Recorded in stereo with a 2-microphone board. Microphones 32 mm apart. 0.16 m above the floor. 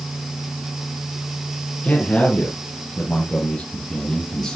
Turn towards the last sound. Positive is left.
turn(degrees=15)  # may be behind; listen again after turning